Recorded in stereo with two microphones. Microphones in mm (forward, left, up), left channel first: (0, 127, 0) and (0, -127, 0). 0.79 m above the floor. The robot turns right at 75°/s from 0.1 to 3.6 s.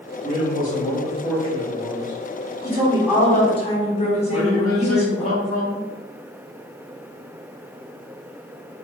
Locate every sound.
0.2 s a man speaking: 115° left, 1.7 m; by 2.1 s 105° right, 1.7 m
2.6 s a woman speaking: 40° right, 1.3 m; by 5.3 s 30° left, 1.3 m
4.3 s a man speaking: 65° right (ahead or behind), 1.4 m